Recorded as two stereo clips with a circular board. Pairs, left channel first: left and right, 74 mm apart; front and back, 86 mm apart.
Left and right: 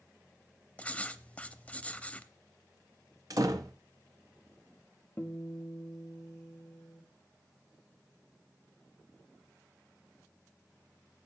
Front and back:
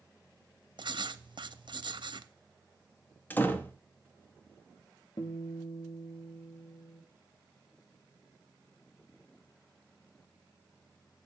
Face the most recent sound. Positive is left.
turn(degrees=25)